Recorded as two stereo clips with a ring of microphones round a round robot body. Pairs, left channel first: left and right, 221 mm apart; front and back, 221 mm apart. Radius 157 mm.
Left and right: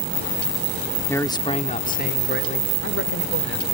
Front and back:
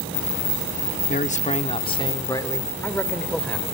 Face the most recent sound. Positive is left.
turn(degrees=85)